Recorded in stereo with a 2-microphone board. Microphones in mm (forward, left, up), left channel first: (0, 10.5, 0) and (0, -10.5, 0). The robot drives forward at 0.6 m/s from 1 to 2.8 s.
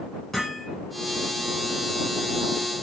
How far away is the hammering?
About 8.5 m.